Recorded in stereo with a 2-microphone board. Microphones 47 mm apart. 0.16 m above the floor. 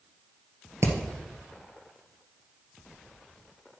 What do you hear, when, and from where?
0.8 s hammering: 65° right (ahead or behind), 1.5 m